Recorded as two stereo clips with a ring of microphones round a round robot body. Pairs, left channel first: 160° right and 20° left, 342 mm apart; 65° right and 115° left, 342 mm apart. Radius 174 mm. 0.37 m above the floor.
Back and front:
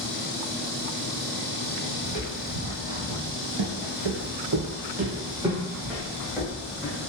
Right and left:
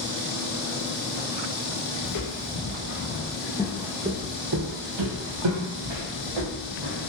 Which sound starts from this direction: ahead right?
Footsteps, at 2.0 s.